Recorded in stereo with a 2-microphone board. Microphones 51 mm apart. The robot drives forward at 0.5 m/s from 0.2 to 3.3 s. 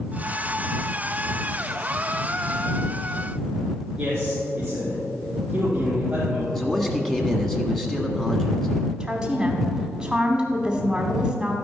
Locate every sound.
4.0 s a man speaking: 20° right (ahead or behind), 3.5 m
6.5 s a man speaking: 5° left (ahead or behind), 1.5 m
9.0 s a woman speaking: 15° right (ahead or behind), 1.0 m